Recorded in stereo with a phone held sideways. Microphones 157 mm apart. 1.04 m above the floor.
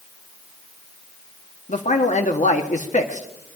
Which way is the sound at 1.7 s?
50° left (ahead or behind).